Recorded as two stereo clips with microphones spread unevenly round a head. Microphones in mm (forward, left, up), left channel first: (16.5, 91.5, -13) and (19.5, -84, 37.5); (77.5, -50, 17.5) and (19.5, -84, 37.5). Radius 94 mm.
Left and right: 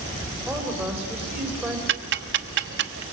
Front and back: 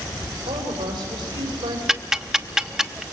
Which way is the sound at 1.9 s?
70° right.